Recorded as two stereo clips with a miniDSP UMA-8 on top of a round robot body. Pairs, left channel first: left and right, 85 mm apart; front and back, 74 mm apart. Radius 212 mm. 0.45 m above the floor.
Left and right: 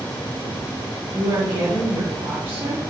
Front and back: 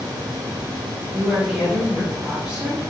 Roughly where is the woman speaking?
Right.